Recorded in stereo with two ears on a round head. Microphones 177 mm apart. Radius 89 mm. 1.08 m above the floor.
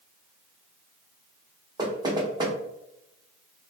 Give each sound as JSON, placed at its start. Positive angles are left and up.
{"t": 1.8, "sound": "knocking", "side_deg": -20, "distance_m": 0.8}